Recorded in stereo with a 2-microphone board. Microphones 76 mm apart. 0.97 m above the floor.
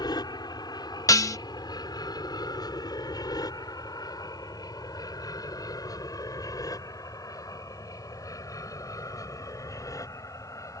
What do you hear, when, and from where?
0.0 s an aircraft: 65° left (ahead or behind); by 10.8 s 45° left (ahead or behind)
1.1 s dishes clattering: 50° left (ahead or behind)